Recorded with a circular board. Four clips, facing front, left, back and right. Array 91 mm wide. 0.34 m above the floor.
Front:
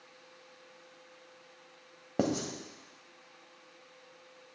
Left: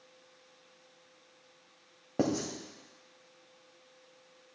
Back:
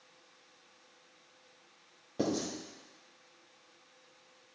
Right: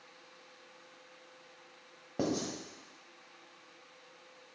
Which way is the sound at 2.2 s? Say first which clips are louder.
Left 3 dB, front 2 dB; 25° left.